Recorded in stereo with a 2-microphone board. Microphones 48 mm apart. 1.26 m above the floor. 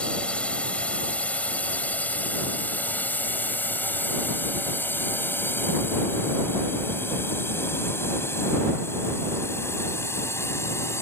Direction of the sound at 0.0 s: 20° left (ahead or behind).